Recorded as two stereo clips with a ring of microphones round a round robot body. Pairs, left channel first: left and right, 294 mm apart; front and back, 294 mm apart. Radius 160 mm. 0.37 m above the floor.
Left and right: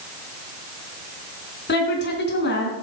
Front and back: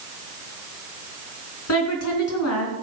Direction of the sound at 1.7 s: 35° left.